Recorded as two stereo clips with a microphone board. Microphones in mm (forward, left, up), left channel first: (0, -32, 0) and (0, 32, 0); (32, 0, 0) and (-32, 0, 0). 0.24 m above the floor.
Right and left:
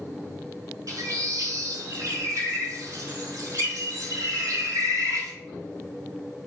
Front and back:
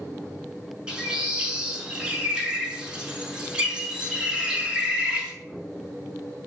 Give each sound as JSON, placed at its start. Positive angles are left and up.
{"t": 0.9, "sound": "a bird", "azimuth_deg": 105, "distance_m": 0.6}